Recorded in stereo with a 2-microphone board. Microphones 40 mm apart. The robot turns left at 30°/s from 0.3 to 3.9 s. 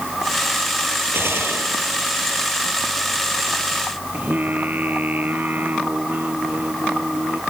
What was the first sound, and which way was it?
A gunshot, 65° right (ahead or behind).